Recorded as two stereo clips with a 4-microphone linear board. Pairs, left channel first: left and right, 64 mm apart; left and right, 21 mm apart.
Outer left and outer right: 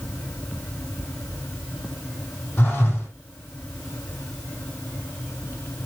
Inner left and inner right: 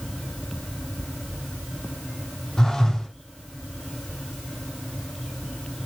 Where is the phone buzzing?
25° left (ahead or behind), 6.5 m.